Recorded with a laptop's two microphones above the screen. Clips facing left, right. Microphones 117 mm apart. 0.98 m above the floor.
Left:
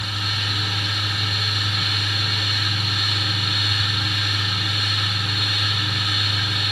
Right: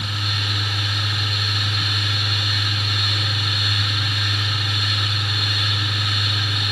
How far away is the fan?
About 1.6 m.